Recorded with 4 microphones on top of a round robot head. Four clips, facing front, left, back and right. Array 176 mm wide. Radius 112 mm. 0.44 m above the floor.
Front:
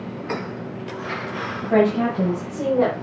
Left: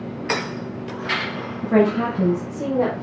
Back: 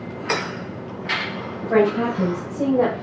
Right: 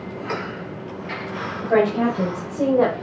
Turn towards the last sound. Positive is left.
turn(degrees=-80)